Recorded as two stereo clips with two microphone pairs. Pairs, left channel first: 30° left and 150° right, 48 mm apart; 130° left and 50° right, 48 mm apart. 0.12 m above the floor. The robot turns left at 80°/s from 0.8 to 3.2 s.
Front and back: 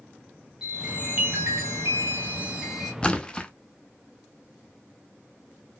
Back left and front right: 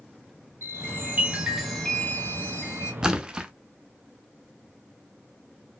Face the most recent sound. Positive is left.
turn(degrees=-5)